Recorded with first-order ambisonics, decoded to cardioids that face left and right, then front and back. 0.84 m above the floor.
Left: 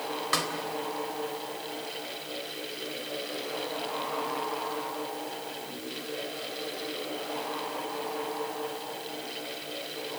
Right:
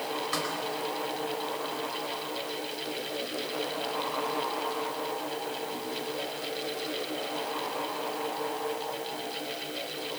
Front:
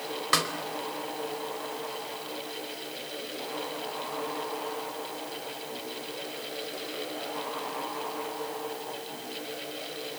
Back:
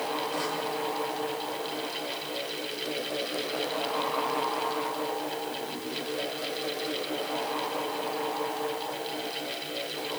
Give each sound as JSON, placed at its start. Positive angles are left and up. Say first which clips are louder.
{"t": 0.3, "sound": "a snare drum", "louder": "left 5 dB, front 5 dB", "azimuth_deg": 20, "distance_m": 3.5}